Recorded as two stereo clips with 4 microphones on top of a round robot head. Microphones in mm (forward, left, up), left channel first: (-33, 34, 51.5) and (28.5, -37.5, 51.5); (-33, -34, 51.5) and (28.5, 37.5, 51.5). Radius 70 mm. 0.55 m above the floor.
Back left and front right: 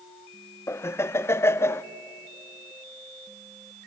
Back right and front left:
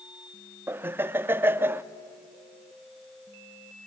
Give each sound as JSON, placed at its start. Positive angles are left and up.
{"t": 0.7, "sound": "laughter", "azimuth_deg": 95, "distance_m": 0.7}